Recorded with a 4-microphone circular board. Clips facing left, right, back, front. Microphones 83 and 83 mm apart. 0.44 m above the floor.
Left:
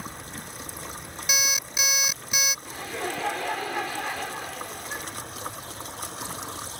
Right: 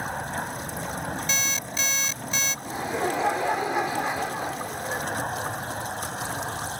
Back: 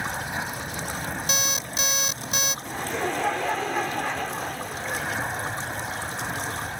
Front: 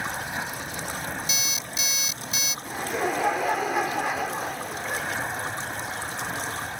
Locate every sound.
0.0 s an aircraft: 95° right
1.3 s an alarm clock: 165° left
2.6 s laughter: 65° right